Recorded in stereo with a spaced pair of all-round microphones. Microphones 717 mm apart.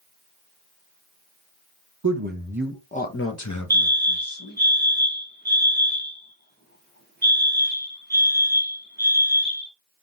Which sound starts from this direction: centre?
A fire alarm, at 3.7 s.